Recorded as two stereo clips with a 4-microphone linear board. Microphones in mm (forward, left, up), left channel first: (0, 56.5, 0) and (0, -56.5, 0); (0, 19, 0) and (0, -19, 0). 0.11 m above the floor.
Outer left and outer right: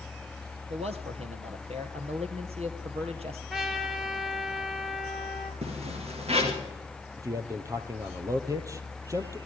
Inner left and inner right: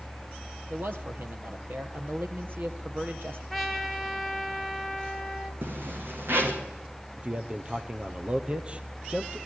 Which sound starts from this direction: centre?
A trumpet, at 3.5 s.